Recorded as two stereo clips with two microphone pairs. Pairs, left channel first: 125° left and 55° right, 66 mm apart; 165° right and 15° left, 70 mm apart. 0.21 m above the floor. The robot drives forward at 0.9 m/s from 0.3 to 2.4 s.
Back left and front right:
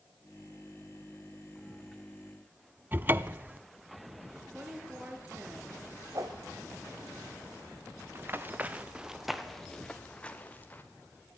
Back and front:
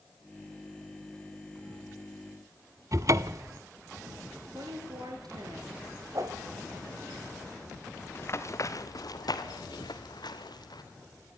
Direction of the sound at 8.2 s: 110° right.